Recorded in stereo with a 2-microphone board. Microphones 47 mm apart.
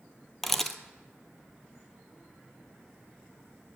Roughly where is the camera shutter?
Centre.